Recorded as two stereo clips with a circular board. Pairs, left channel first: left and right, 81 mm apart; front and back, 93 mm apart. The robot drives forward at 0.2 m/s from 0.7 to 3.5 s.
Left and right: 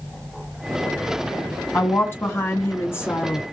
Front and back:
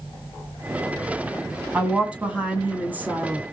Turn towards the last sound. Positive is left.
turn(degrees=125)